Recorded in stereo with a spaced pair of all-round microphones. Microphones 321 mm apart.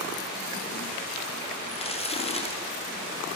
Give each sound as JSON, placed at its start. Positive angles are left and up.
{"t": 1.7, "sound": "crumpling", "side_deg": 20, "distance_m": 3.0}